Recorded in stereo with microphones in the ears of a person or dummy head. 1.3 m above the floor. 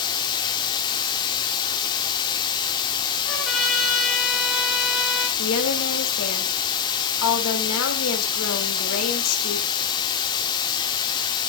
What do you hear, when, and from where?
0.0 s running water: 25° left (ahead or behind), 1.6 m
3.3 s a trumpet: centre (ahead or behind), 4.5 m
5.4 s a woman speaking: 85° left, 2.5 m